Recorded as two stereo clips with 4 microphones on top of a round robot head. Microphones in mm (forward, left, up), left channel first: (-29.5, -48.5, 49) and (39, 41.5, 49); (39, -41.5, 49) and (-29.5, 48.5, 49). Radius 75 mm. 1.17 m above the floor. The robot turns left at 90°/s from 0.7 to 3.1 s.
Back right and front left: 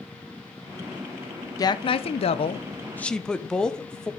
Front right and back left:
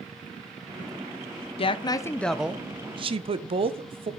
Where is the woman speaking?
75° right, 0.9 m; by 4.1 s 150° left, 0.9 m.